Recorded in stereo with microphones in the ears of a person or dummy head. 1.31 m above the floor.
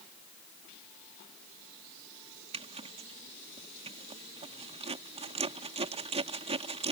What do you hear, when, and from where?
2.5 s a zipper: 35° right (ahead or behind)